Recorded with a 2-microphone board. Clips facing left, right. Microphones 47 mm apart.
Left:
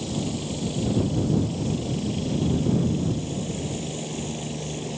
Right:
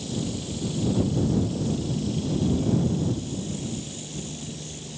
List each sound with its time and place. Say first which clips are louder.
0.0 s a helicopter: left 2 dB; 30° left (ahead or behind); by 5.0 s 40° left (ahead or behind)